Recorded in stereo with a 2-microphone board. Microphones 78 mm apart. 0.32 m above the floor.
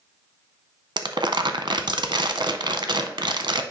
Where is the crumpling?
70° right (ahead or behind), 0.6 m.